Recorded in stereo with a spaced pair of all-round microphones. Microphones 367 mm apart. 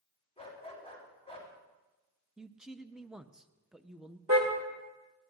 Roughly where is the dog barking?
Centre.